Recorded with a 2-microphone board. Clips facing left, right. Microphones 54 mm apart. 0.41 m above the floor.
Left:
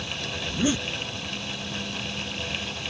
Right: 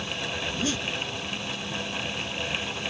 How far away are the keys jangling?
No keys jangling in this recording.